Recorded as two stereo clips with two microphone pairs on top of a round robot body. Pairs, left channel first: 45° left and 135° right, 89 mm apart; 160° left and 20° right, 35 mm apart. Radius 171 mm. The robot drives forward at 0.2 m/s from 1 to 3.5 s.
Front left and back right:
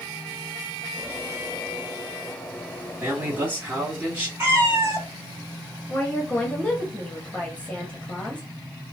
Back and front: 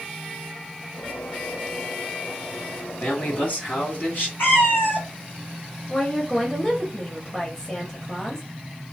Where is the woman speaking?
115° left, 1.3 m.